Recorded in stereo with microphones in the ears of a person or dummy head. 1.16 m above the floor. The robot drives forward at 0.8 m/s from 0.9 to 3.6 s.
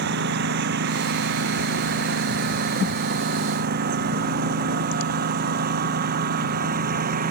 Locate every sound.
0.0 s a lawn mower: 60° right (ahead or behind); by 7.3 s 50° right (ahead or behind)